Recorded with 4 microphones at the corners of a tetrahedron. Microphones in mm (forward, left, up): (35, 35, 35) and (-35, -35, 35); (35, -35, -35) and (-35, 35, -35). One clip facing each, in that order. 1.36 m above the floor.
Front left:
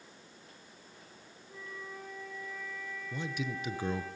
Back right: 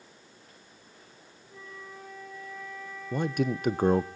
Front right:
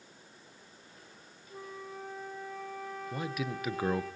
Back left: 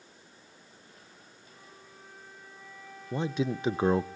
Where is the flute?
45° right, 4.5 m.